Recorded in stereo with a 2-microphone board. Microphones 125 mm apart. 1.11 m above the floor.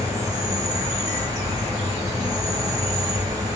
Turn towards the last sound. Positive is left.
turn(degrees=-25)  # may be behind; listen again after turning